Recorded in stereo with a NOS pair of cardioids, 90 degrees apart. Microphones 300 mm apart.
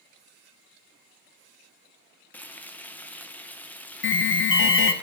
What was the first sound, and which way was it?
Frying, 5° left.